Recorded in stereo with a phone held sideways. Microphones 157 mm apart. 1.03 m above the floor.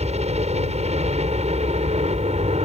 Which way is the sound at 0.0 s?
45° right (ahead or behind).